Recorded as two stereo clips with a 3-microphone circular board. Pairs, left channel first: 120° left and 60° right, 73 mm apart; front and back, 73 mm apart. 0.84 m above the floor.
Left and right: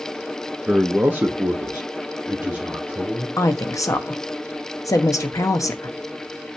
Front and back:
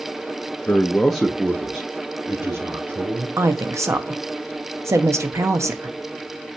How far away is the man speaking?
About 0.7 m.